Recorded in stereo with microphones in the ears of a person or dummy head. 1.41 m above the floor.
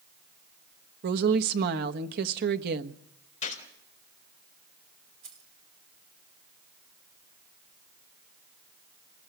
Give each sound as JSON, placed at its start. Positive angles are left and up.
{"t": 1.0, "sound": "a woman speaking", "side_deg": -55, "distance_m": 1.2}
{"t": 3.4, "sound": "a gunshot", "side_deg": 35, "distance_m": 4.0}
{"t": 5.2, "sound": "keys jangling", "side_deg": -40, "distance_m": 3.0}